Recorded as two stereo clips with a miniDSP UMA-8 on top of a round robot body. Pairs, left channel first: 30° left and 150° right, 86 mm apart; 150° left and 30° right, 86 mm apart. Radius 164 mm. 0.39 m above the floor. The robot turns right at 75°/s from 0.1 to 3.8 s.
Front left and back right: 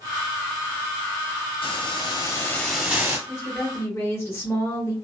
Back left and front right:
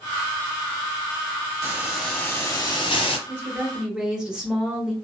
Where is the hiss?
30° left, 0.9 m; by 3.2 s 150° left, 0.9 m.